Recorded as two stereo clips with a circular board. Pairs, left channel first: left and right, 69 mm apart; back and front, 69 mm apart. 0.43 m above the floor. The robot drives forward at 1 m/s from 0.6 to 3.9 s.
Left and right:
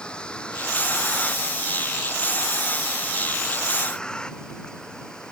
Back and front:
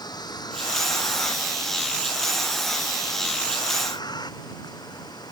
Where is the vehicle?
165° left; by 5.3 s 170° left.